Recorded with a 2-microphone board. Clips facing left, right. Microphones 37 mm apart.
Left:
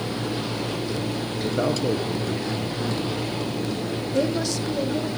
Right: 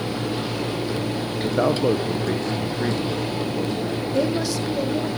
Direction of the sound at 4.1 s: 5° right (ahead or behind).